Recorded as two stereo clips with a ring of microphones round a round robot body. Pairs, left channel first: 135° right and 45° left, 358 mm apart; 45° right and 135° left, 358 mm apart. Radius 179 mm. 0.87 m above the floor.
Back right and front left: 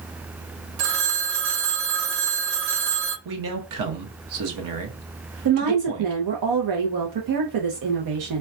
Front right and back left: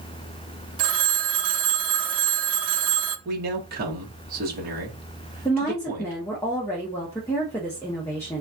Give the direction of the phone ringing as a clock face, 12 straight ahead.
9 o'clock.